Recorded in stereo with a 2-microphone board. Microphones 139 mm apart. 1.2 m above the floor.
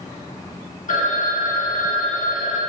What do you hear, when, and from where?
0.9 s a phone ringing: 65° left (ahead or behind), 1.6 m